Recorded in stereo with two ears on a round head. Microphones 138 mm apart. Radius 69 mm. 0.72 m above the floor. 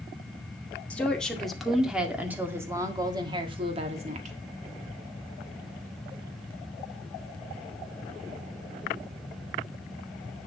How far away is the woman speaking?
About 2 m.